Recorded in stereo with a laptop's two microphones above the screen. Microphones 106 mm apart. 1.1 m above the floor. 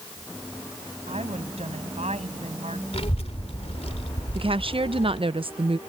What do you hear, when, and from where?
1.1 s a woman speaking: 75° right (ahead or behind); by 2.8 s 80° right
2.9 s a child speaking: 70° left (ahead or behind)
4.3 s a woman speaking: 55° right (ahead or behind)